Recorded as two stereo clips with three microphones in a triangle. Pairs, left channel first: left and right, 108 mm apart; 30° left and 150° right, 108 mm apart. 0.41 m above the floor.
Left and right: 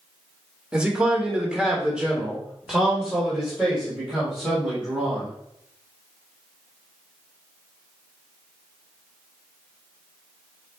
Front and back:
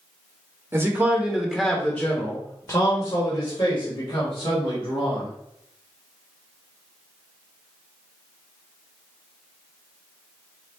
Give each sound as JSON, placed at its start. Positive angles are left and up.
{"t": 0.7, "sound": "a man speaking", "azimuth_deg": -155, "distance_m": 0.9}